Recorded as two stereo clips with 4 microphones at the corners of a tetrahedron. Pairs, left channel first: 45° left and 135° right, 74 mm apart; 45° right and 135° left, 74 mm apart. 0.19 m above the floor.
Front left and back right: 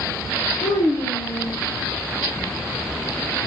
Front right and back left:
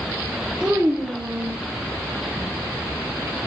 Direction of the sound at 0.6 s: 60° left.